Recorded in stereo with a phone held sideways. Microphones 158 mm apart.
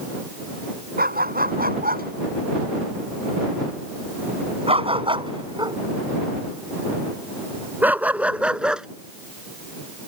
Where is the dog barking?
75° right (ahead or behind); by 8.9 s 5° right (ahead or behind).